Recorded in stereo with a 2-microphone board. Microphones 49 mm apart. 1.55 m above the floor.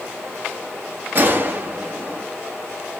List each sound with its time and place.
1.1 s a gunshot: 40° right (ahead or behind), 0.9 m